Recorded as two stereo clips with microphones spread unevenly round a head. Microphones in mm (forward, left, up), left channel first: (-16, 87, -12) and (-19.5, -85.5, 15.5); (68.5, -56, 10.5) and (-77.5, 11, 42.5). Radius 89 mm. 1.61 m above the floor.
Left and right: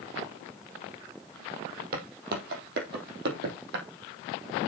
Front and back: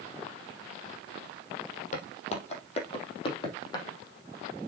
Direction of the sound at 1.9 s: 75° right.